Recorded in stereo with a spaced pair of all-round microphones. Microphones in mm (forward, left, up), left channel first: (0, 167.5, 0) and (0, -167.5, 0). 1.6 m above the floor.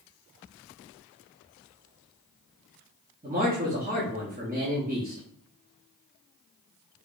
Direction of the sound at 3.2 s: 25° right (ahead or behind).